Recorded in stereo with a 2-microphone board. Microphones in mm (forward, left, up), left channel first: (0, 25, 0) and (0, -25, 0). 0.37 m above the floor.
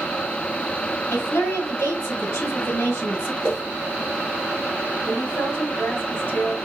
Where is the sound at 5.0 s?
65° left (ahead or behind), 3 m.